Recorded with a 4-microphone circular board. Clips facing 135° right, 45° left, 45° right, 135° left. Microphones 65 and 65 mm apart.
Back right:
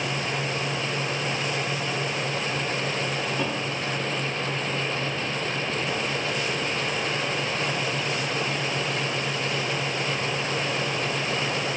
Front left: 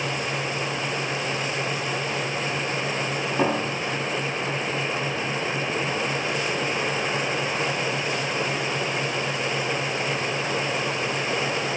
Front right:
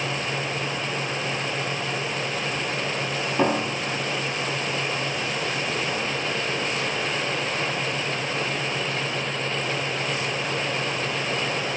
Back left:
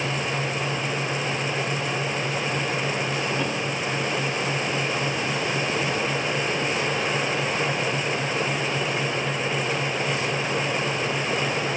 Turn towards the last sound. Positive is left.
turn(degrees=-5)